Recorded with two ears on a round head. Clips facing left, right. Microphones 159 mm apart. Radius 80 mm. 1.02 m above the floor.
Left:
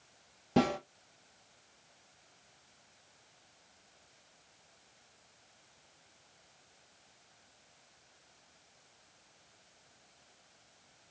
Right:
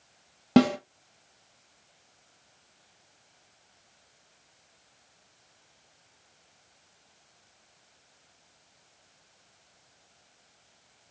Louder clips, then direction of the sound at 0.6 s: Right 9 dB; 75° right (ahead or behind).